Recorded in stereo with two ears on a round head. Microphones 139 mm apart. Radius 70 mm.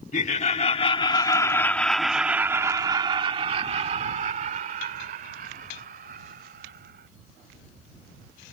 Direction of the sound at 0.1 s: 50° left (ahead or behind).